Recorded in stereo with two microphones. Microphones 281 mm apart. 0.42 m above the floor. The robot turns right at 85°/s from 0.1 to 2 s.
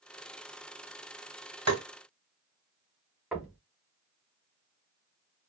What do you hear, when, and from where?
1.7 s tapping: 60° right (ahead or behind), 1.1 m; by 1.8 s 70° right (ahead or behind), 1.1 m
3.3 s knocking: 5° right (ahead or behind), 0.8 m